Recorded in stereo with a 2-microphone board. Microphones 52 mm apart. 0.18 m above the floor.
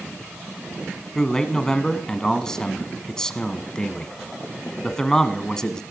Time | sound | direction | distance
1.1 | a man speaking | 15° left (ahead or behind) | 1.3 m